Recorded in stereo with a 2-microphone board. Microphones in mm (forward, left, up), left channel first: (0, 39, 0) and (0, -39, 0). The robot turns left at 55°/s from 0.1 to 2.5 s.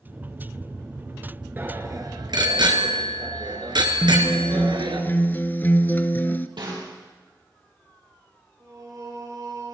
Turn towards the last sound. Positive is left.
turn(degrees=-45)  # may be behind; listen again after turning